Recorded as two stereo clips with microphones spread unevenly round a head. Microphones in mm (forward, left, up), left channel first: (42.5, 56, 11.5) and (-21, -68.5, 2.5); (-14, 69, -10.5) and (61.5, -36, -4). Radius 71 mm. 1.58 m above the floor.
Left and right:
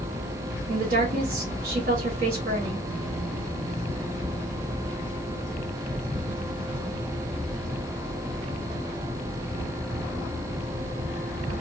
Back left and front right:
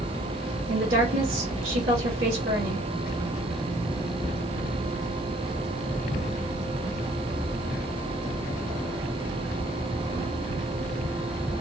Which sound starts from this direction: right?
A woman speaking, at 0.7 s.